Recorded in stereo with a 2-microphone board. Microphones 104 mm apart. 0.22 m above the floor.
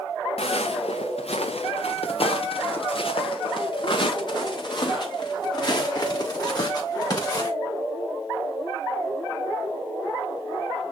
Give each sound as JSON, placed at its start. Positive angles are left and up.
{"t": 0.4, "sound": "footsteps", "side_deg": 85, "distance_m": 1.9}